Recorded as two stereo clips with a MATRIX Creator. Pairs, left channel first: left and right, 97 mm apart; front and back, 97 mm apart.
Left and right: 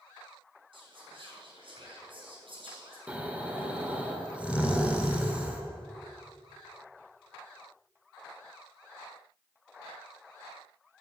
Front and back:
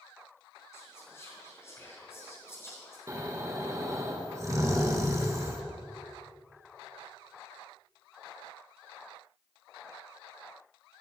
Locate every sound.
0.7 s whispering: 60° right, 4 m
3.1 s snoring: 160° right, 1.4 m